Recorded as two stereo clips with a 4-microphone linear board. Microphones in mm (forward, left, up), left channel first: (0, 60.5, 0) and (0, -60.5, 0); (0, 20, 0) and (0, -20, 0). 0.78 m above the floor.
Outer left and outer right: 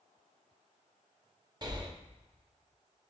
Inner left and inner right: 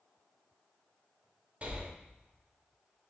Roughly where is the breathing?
Right.